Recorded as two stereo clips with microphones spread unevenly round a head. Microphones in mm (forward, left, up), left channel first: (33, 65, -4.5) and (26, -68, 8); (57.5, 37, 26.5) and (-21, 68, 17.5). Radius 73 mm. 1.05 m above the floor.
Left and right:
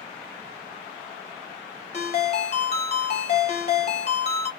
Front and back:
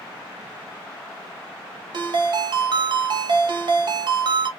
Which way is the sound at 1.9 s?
135° left.